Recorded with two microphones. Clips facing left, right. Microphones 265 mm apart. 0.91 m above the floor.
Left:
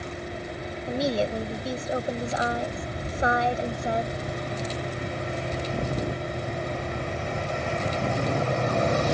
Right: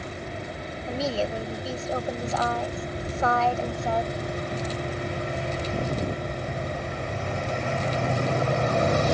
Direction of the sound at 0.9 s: 15° left (ahead or behind).